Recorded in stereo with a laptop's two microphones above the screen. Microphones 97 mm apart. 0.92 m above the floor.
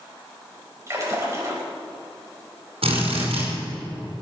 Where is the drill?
80° right, 5 m.